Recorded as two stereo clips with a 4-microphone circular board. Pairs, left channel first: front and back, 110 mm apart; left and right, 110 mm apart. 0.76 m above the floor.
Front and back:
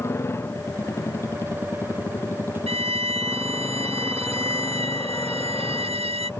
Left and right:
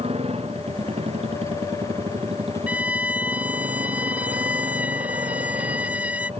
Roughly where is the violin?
Behind.